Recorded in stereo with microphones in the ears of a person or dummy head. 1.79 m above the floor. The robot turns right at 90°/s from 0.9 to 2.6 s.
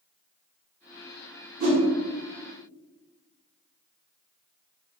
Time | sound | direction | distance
1.6 | a whoosh | 45° right (ahead or behind) | 0.8 m